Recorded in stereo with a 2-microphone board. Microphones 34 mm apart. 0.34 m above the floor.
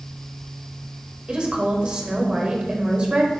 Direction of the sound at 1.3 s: 30° right (ahead or behind).